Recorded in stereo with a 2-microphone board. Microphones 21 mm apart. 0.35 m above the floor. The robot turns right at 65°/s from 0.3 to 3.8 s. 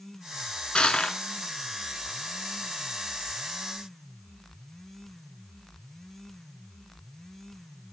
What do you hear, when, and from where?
0.8 s crushing: 70° left (ahead or behind), 0.6 m